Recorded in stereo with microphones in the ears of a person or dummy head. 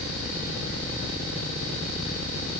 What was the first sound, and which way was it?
Only background noise.